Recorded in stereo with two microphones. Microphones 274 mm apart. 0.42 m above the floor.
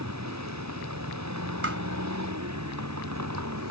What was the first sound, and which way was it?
A vehicle, 80° right.